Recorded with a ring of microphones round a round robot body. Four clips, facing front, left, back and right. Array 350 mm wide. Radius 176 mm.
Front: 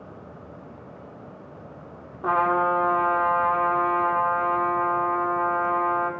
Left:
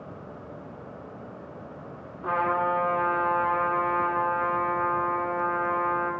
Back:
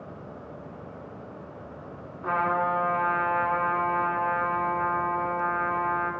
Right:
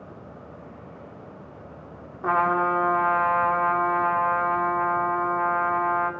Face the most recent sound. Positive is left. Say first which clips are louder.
# right 3 dB, front 4 dB
turn(degrees=-40)